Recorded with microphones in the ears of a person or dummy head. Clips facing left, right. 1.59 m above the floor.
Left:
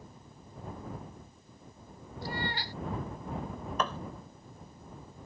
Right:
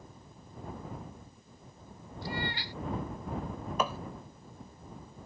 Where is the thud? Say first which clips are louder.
Right 1 dB; 10° right (ahead or behind).